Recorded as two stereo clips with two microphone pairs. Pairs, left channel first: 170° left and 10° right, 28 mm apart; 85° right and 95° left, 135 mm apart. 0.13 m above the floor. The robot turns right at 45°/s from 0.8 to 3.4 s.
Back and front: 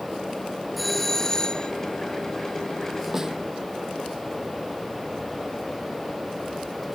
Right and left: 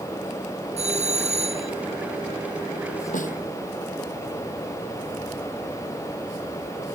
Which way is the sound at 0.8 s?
80° left.